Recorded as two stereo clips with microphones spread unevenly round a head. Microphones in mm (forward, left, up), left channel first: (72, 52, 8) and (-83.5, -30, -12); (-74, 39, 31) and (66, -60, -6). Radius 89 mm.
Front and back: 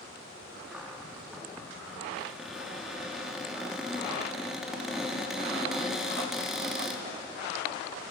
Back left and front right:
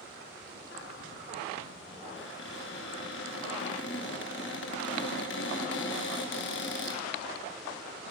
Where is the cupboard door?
120° left, 2.5 m.